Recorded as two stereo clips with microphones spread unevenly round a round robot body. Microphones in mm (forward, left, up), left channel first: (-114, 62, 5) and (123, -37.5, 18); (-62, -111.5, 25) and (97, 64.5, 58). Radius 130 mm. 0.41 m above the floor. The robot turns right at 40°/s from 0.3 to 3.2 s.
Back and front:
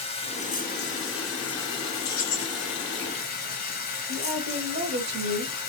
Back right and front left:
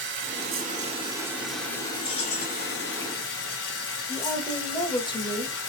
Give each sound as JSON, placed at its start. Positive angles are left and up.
{"t": 0.0, "sound": "running water", "azimuth_deg": 95, "distance_m": 1.7}
{"t": 2.0, "sound": "keys jangling", "azimuth_deg": -155, "distance_m": 1.9}
{"t": 4.1, "sound": "a woman speaking", "azimuth_deg": -70, "distance_m": 1.5}